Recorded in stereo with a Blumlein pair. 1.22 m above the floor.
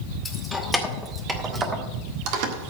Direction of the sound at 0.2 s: 10° left.